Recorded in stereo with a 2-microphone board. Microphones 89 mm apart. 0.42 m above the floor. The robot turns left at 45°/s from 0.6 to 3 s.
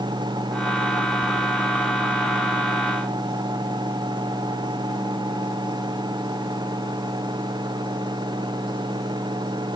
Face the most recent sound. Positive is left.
No sound to turn to.